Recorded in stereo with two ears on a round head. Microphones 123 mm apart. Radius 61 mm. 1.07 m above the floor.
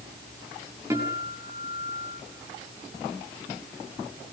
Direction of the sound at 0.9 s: 20° right (ahead or behind).